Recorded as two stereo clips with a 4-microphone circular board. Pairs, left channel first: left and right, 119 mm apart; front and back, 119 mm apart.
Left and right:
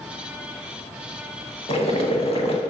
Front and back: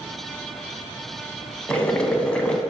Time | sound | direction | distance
1.7 | boiling | 80° left | 0.8 m